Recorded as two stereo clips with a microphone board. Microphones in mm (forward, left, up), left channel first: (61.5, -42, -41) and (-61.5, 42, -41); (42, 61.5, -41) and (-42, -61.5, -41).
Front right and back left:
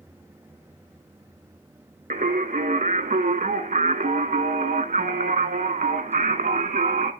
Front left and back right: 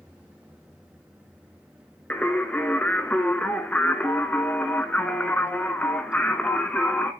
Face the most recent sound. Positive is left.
turn(degrees=135)